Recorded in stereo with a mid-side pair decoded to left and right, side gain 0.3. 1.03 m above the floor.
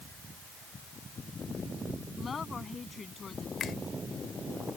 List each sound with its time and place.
2.2 s a woman speaking: 55° left
3.6 s a finger snap: 70° left